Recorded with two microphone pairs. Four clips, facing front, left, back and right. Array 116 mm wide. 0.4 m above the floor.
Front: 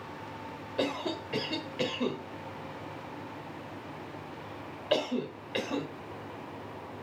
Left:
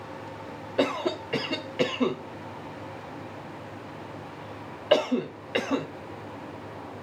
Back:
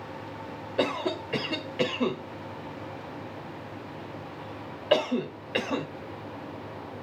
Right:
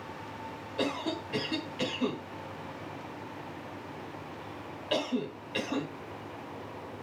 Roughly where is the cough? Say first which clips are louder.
Left 6 dB, back 4 dB; behind left.